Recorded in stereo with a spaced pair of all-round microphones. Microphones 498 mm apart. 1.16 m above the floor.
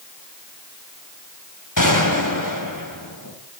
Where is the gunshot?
40° left (ahead or behind), 3 m.